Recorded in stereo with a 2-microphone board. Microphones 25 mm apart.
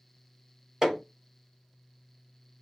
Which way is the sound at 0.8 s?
15° right (ahead or behind).